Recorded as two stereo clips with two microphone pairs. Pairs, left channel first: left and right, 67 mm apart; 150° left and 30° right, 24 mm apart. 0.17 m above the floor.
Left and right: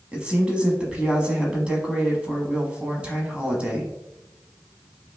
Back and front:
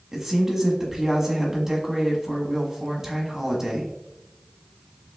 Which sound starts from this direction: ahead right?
A woman speaking, at 0.1 s.